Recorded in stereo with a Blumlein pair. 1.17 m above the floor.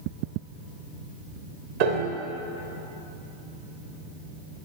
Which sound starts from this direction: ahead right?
A piano, at 1.8 s.